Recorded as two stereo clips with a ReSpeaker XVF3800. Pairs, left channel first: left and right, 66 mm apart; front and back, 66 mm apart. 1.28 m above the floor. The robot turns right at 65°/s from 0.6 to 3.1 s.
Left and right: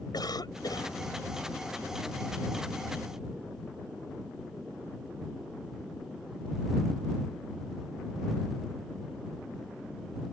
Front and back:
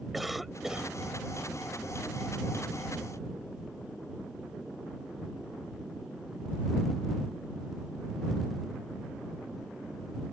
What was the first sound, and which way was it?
A cough, 90° left.